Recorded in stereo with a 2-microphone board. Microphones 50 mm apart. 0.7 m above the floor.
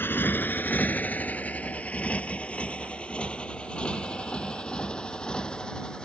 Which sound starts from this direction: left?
A motorcycle, at 0.0 s.